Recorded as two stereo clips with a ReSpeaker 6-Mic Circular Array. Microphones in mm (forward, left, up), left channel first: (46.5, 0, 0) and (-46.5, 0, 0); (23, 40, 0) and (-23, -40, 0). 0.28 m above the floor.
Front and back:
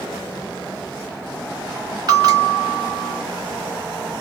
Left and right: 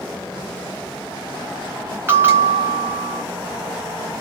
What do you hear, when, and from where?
2.1 s a bell: straight behind, 1.1 m